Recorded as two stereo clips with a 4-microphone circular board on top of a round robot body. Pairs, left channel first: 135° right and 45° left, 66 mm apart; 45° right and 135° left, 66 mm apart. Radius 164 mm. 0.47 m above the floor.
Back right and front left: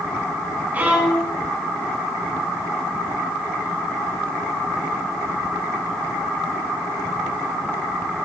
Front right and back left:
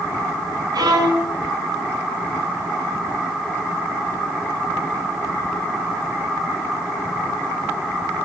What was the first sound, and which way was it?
A violin, 115° left.